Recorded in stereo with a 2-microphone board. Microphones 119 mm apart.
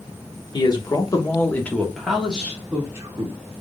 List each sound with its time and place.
0.5 s a man speaking: 40° left (ahead or behind), 1.1 m; by 3.4 s 30° right (ahead or behind), 1.3 m